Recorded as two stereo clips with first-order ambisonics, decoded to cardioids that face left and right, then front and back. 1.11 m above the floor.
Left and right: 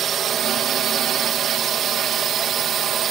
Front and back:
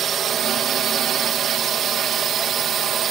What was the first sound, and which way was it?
A drone, 135° right.